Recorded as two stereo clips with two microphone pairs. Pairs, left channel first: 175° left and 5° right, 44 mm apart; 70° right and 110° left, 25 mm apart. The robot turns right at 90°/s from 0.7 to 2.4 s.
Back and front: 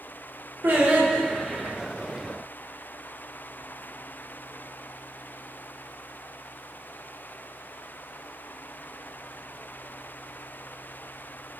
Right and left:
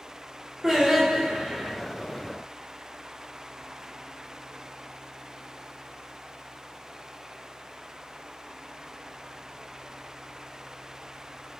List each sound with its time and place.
0.6 s singing: 30° left, 4.5 m; by 1.7 s 125° left, 4.5 m